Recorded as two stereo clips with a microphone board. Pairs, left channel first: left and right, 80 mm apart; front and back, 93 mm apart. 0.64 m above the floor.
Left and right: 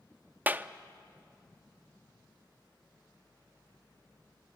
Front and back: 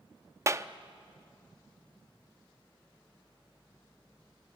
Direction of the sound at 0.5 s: 145° right.